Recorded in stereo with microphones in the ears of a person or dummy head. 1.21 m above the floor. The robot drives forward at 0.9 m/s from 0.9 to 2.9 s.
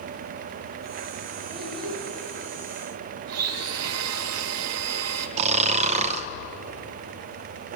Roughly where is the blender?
Right.